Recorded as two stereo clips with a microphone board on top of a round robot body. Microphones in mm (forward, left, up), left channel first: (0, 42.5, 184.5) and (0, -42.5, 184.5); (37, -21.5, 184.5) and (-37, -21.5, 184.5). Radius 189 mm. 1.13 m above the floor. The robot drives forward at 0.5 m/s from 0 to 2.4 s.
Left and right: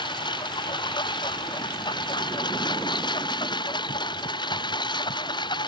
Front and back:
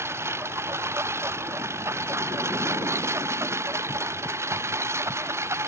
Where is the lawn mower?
125° left.